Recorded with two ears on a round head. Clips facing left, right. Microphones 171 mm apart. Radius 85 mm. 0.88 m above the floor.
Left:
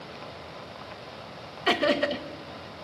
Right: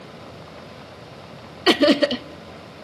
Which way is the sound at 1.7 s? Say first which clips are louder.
Right 8 dB; 55° right (ahead or behind).